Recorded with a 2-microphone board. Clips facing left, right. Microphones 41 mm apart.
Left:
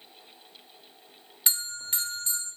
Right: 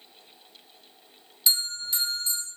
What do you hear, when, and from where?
1.5 s a bell: 45° left (ahead or behind), 0.5 m